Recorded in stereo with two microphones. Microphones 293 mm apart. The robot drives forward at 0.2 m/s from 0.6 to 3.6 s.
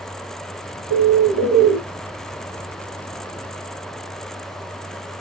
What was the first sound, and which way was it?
A bird, 50° right (ahead or behind).